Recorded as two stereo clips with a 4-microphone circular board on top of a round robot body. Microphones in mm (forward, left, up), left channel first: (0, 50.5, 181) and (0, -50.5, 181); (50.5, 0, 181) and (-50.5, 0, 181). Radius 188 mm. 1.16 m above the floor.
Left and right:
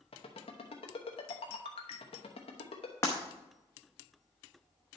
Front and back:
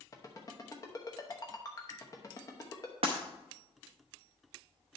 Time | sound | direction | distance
0.1 | a ringtone | 60° left | 0.9 m
3.0 | breaking glass | 155° left | 0.6 m